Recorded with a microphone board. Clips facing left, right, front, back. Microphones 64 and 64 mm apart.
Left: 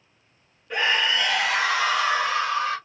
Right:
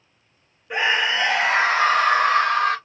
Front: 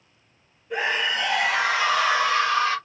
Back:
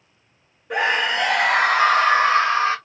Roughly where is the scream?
Behind.